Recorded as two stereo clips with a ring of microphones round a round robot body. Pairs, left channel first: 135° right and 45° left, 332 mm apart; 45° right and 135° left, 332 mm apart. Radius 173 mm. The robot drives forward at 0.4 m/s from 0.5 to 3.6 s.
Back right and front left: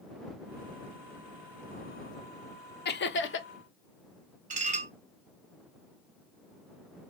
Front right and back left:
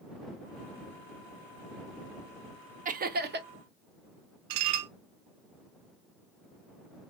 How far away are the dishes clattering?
About 0.6 m.